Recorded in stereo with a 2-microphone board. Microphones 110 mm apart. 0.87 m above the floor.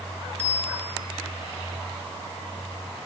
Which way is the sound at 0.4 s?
80° right.